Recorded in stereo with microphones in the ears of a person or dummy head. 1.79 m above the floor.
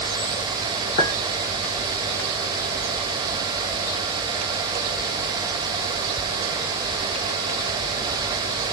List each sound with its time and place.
1.0 s a clink: 50° left (ahead or behind), 1.4 m